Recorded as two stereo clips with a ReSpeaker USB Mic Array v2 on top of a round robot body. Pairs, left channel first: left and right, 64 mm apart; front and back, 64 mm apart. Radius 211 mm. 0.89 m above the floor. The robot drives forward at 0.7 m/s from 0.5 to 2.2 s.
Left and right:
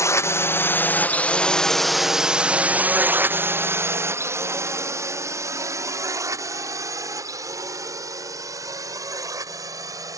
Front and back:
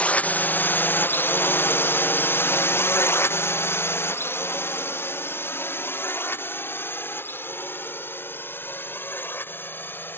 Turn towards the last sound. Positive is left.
turn(degrees=-60)